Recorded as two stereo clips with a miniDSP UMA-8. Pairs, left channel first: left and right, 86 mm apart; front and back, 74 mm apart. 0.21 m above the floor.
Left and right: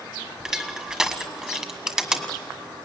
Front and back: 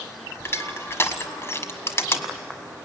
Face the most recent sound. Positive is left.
turn(degrees=-15)